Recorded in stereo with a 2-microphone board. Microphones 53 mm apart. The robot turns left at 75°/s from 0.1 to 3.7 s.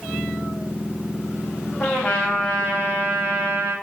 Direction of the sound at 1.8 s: 20° left.